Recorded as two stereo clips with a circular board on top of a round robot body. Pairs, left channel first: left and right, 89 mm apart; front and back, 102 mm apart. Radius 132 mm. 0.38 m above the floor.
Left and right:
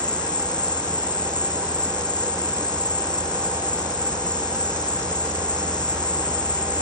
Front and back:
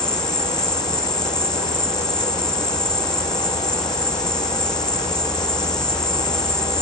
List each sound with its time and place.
0.0 s an insect: 80° left